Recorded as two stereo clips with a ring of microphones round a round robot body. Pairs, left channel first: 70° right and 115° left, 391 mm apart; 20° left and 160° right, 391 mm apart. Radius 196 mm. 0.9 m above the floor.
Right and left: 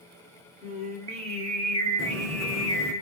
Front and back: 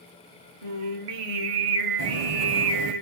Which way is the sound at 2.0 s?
170° left.